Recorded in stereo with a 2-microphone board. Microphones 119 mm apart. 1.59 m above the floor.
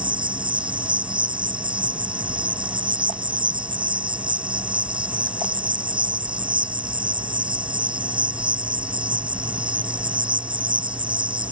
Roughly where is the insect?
Right.